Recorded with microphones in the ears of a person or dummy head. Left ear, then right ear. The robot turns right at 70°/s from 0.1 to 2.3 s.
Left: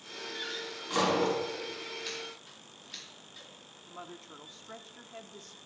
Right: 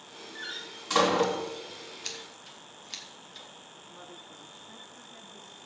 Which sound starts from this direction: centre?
A door slam, at 0.3 s.